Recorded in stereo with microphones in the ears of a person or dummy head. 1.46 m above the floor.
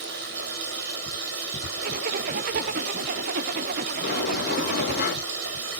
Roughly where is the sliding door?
Left.